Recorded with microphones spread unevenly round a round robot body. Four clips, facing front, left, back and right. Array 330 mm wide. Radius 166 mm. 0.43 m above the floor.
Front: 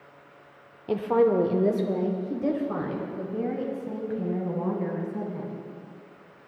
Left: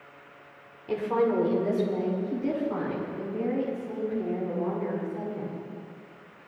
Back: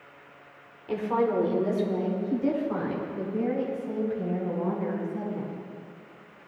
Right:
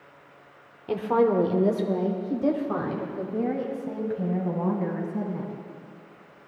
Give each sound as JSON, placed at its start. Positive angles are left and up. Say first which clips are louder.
{"t": 0.9, "sound": "a woman speaking", "louder": "right 3 dB, front 4 dB", "azimuth_deg": -30, "distance_m": 1.0}